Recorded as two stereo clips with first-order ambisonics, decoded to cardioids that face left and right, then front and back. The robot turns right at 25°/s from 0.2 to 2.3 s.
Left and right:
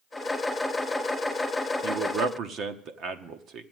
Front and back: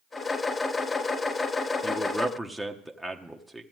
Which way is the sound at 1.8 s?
110° right.